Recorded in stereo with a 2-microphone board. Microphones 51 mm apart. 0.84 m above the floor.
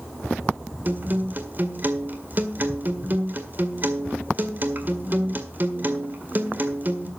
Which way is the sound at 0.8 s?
35° right (ahead or behind).